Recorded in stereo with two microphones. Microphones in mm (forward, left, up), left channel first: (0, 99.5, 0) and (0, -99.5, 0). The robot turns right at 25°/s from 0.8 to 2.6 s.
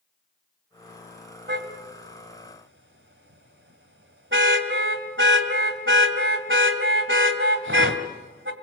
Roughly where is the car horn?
Right.